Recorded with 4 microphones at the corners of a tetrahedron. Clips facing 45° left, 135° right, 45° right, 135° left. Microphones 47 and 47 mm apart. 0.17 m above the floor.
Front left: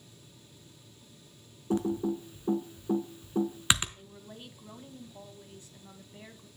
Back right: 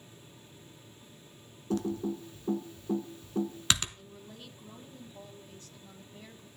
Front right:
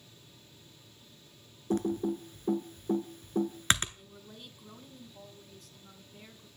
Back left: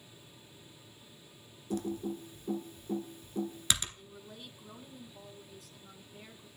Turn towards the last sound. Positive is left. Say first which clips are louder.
# front left 1 dB, back left 1 dB
turn(degrees=45)